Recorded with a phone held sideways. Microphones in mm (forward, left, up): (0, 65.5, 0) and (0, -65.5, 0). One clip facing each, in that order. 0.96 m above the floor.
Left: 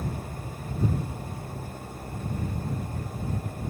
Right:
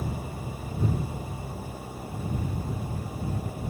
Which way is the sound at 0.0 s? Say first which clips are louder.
Right 1 dB; 5° right (ahead or behind).